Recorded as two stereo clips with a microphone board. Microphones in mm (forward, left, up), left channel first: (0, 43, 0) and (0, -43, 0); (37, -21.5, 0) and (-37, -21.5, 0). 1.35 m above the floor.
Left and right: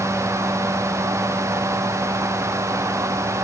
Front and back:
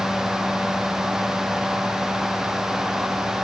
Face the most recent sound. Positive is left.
No sound to turn to.